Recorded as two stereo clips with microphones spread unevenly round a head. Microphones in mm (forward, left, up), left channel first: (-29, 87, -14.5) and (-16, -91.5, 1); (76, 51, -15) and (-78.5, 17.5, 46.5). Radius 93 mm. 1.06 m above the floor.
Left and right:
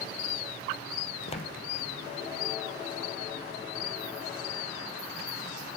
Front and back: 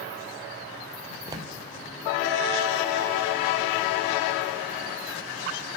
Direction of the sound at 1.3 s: 150° left.